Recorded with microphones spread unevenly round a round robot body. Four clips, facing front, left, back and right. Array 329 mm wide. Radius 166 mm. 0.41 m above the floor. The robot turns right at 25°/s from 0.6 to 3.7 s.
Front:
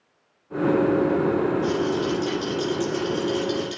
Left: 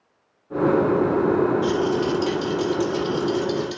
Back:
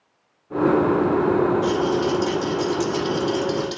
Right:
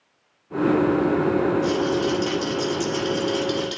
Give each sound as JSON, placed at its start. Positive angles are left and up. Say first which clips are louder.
{"t": 1.6, "sound": "a rattle", "louder": "left 1 dB, back 3 dB", "azimuth_deg": 155, "distance_m": 5.5}